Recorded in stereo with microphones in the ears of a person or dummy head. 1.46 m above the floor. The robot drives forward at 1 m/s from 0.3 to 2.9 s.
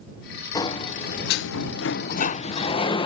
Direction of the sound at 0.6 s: 30° left (ahead or behind).